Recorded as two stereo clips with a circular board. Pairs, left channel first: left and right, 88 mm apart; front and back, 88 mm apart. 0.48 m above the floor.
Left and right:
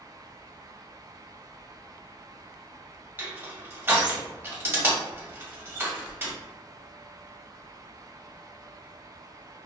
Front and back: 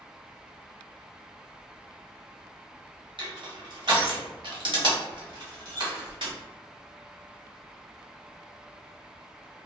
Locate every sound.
3.2 s crushing: 155° right, 0.9 m